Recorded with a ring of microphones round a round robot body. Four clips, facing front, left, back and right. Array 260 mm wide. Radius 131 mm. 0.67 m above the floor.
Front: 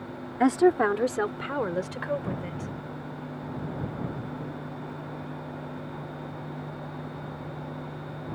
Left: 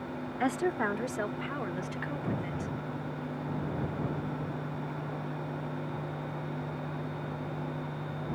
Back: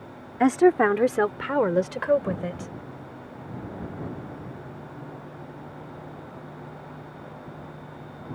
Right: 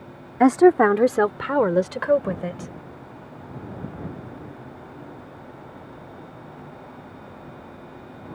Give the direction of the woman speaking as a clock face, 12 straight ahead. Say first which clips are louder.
Right 16 dB, back 3 dB; 3 o'clock.